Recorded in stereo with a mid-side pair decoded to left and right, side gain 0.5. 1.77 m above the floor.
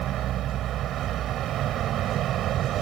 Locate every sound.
0.0 s a vehicle: 65° right